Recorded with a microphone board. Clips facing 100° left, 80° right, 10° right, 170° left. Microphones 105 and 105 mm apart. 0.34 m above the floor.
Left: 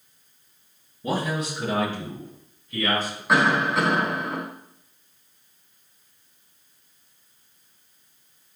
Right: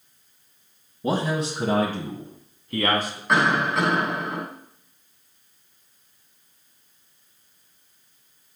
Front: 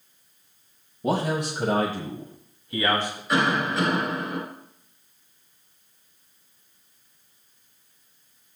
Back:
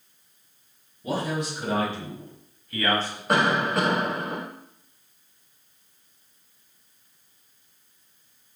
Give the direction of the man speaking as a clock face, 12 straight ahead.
1 o'clock.